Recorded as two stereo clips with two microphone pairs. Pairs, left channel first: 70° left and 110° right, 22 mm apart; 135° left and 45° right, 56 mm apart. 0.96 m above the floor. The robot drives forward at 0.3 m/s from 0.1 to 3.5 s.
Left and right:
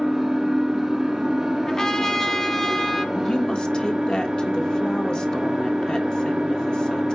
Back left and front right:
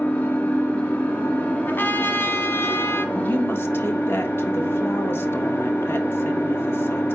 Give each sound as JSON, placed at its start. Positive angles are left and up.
{"t": 0.0, "sound": "an engine running", "azimuth_deg": -175, "distance_m": 3.5}
{"t": 1.7, "sound": "a trumpet", "azimuth_deg": 120, "distance_m": 1.1}
{"t": 3.1, "sound": "a woman speaking", "azimuth_deg": 100, "distance_m": 1.5}